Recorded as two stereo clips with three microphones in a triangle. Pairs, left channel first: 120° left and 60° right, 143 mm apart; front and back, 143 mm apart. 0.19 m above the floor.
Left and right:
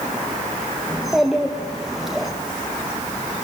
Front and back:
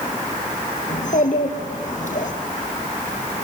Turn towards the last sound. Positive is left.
turn(degrees=30)